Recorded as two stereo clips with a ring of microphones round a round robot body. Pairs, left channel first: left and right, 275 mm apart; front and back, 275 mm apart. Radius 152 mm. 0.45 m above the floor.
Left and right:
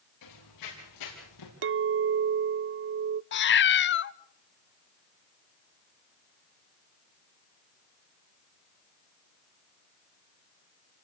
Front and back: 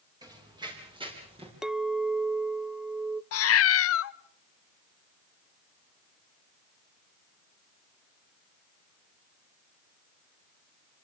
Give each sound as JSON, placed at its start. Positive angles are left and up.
{"t": 0.2, "sound": "running footsteps", "azimuth_deg": 105, "distance_m": 9.5}
{"t": 1.6, "sound": "a clink", "azimuth_deg": -95, "distance_m": 0.5}
{"t": 3.3, "sound": "a cat meowing", "azimuth_deg": 40, "distance_m": 0.7}